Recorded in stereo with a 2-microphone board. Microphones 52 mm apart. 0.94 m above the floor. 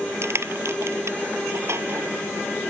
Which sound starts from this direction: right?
Crushing, at 0.2 s.